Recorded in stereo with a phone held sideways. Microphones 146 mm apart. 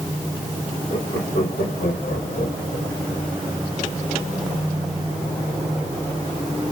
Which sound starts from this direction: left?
Laughter, at 0.9 s.